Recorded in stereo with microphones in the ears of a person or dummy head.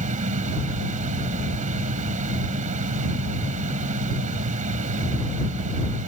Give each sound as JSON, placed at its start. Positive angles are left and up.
{"t": 0.0, "sound": "a fan", "side_deg": -35}